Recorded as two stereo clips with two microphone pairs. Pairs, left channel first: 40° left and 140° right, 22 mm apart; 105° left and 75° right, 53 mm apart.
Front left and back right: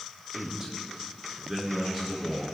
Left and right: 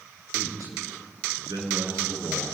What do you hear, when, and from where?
0.3 s a man speaking: 80° right, 9 m; by 2.5 s 70° right, 7 m